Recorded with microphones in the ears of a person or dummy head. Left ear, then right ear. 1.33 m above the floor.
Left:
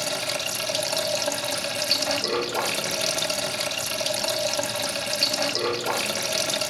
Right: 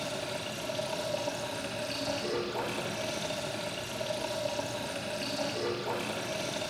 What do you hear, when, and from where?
0.0 s running water: 65° left (ahead or behind), 1.7 m